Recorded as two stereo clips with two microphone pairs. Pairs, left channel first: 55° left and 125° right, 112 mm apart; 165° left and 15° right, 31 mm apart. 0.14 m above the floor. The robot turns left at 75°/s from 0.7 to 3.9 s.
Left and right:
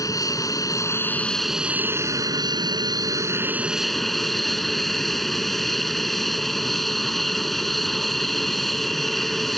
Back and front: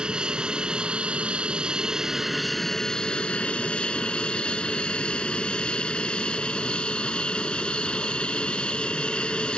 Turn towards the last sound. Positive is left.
turn(degrees=145)